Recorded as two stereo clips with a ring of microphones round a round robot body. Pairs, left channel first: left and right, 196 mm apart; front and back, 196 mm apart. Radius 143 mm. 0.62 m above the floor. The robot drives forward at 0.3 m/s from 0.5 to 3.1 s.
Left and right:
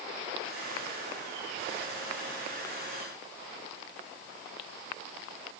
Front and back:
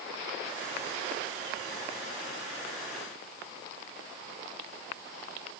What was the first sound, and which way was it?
Only background noise.